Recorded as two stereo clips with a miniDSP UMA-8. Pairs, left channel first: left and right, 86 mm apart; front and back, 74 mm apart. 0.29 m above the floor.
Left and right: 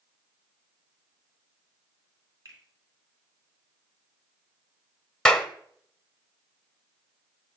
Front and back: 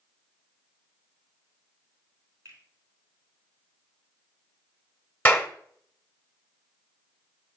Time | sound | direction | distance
2.5 | a finger snap | 135° right | 3 m
5.2 | a clap | 20° left | 0.8 m